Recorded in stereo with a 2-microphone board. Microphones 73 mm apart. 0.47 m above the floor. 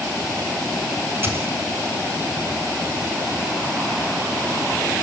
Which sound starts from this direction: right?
A dropped coin, at 1.2 s.